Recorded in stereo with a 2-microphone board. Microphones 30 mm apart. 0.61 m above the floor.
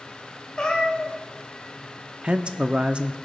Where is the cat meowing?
30° left (ahead or behind), 1.8 m.